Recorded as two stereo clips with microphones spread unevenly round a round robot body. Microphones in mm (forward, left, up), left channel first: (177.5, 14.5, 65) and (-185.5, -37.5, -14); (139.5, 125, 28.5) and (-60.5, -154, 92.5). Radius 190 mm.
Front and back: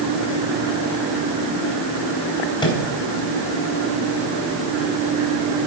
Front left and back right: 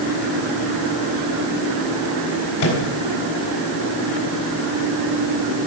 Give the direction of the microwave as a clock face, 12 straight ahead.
9 o'clock.